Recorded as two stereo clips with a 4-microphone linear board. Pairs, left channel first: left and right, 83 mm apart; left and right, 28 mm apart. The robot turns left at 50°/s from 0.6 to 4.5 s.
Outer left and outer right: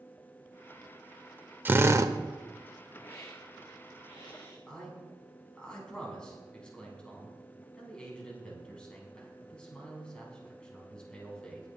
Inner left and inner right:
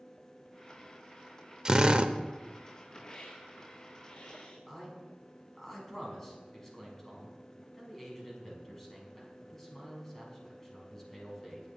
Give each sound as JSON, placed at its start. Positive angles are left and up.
{"t": 1.6, "sound": "a drill", "side_deg": -25, "distance_m": 0.7}
{"t": 3.0, "sound": "a hiss", "azimuth_deg": 150, "distance_m": 5.0}
{"t": 4.7, "sound": "a man speaking", "side_deg": 10, "distance_m": 4.5}